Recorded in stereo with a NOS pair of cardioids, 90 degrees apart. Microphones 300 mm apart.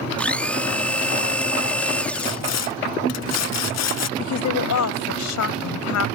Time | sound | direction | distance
0.2 | a blender | 5° left | ?
2.1 | sawing | 65° left | ?
4.2 | a woman speaking | 70° left | ?